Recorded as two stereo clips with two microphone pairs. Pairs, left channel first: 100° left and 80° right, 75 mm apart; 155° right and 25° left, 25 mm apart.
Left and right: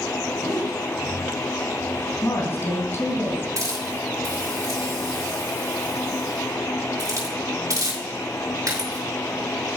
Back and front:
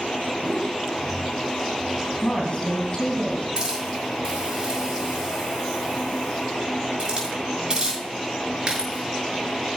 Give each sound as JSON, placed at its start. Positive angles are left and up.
{"t": 0.4, "sound": "a whoosh", "azimuth_deg": -105, "distance_m": 2.0}
{"t": 2.2, "sound": "a woman speaking", "azimuth_deg": 155, "distance_m": 3.0}
{"t": 3.6, "sound": "a hiss", "azimuth_deg": -35, "distance_m": 6.0}